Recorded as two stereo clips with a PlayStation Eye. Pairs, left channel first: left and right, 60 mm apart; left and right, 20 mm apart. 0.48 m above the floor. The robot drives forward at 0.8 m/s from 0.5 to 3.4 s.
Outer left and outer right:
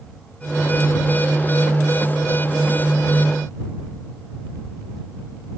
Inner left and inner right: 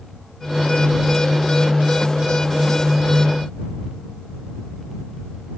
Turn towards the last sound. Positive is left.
No sound to turn to.